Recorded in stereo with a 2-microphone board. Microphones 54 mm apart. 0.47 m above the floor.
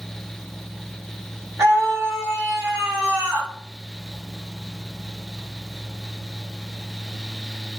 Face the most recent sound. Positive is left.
turn(degrees=-65)  # may be behind; listen again after turning